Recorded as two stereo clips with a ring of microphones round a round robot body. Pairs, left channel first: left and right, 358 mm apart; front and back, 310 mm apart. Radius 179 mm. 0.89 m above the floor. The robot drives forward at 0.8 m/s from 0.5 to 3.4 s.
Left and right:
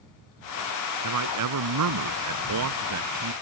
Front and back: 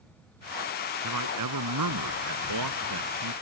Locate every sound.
1.0 s a man speaking: 130° right; by 3.3 s 140° right